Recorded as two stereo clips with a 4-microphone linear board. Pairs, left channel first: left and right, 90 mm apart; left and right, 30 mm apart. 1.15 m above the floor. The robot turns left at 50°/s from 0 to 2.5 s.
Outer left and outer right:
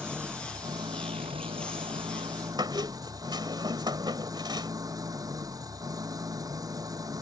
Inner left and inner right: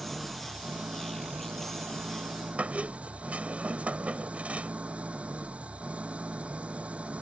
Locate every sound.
0.0 s an engine running: 10° right; by 7.2 s 135° right
2.6 s a squeak: 55° right (ahead or behind)